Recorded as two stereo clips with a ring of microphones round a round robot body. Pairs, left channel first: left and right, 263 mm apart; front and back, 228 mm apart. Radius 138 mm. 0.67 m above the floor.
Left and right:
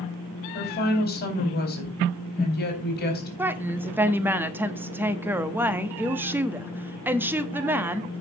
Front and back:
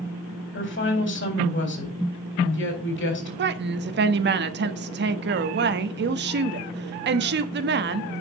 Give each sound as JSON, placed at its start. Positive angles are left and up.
{"t": 0.5, "sound": "a woman speaking", "azimuth_deg": 35, "distance_m": 3.5}
{"t": 3.4, "sound": "a woman speaking", "azimuth_deg": -170, "distance_m": 0.9}